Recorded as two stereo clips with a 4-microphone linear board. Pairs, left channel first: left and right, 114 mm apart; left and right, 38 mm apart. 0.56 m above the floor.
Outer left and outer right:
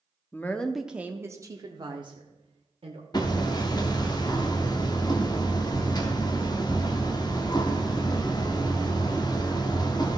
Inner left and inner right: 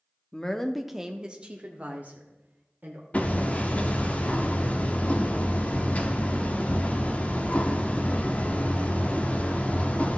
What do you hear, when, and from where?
0.3 s a woman speaking: 20° left (ahead or behind), 0.7 m; by 3.0 s 55° right (ahead or behind), 1.5 m
3.1 s hammering: 40° left (ahead or behind), 1.0 m